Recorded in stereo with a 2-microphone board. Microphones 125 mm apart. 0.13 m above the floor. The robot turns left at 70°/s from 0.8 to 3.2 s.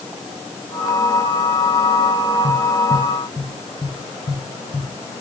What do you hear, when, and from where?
2.4 s tapping: 35° left (ahead or behind), 2.5 m; by 4.9 s 40° left (ahead or behind), 2.5 m